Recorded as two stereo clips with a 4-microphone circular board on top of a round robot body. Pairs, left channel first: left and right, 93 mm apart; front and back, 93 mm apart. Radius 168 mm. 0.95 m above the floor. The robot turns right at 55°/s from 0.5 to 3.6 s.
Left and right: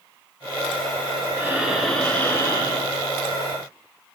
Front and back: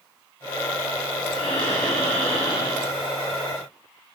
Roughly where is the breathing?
Ahead right.